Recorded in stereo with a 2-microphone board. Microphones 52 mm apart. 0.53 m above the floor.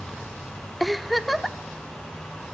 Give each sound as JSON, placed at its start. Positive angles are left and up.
{"t": 0.8, "sound": "a giggle", "side_deg": 0, "distance_m": 0.9}